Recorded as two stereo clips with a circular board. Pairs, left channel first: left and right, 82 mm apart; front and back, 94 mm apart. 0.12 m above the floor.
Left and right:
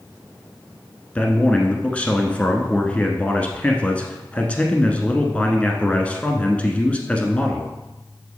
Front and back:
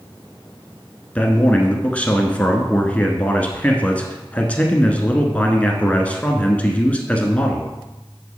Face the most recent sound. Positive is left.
turn(degrees=50)